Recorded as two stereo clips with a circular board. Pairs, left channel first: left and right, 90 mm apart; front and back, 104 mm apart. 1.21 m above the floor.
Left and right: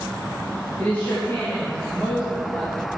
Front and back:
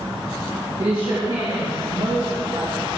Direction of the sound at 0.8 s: 155° left.